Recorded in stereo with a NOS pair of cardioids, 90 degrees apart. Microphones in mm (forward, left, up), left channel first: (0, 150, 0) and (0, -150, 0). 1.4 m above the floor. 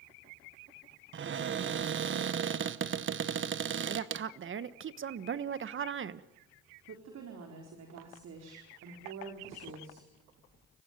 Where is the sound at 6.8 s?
60° right, 4.5 m.